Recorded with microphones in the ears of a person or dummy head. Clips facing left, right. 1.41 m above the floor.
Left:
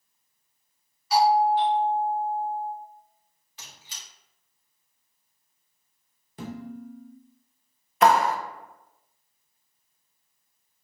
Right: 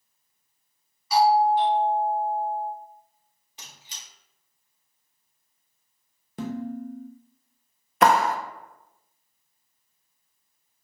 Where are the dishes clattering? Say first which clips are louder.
Right 6 dB; 50° right (ahead or behind), 0.8 m.